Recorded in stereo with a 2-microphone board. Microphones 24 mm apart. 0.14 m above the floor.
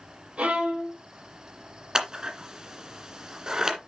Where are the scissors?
30° right (ahead or behind), 2 m.